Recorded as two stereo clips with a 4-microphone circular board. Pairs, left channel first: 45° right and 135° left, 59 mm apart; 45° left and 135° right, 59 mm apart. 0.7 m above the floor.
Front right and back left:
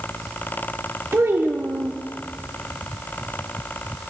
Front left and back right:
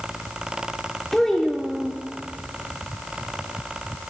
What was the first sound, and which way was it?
A child speaking, 125° left.